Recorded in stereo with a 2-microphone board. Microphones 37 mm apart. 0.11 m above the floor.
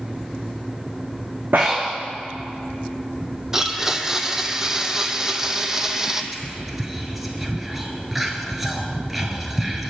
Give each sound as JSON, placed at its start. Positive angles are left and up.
{"t": 1.5, "sound": "breathing", "side_deg": -75, "distance_m": 2.0}
{"t": 3.5, "sound": "a blender", "side_deg": -15, "distance_m": 0.7}
{"t": 6.3, "sound": "whispering", "side_deg": -5, "distance_m": 1.6}